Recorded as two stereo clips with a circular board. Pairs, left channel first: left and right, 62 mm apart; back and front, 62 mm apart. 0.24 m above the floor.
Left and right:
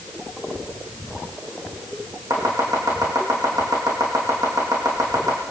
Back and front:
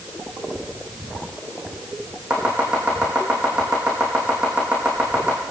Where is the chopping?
70° right, 5.5 m.